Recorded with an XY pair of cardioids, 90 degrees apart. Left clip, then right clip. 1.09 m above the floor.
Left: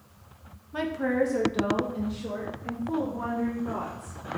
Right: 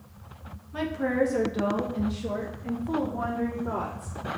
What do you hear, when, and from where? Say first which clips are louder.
0.7 s a woman speaking: even; 20° left, 0.6 m; by 4.2 s 40° right, 1.9 m